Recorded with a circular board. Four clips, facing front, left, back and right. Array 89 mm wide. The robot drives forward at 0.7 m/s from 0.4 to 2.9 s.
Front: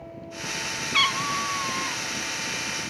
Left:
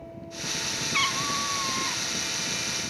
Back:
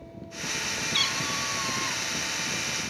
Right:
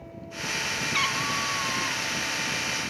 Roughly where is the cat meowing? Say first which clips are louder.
Left 1 dB, front 9 dB; ahead.